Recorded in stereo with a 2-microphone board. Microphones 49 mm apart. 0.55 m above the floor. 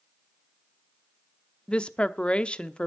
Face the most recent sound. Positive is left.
turn(degrees=20)  # may be behind; listen again after turning